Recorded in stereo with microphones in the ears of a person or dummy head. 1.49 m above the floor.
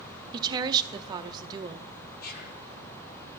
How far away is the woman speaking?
About 0.6 m.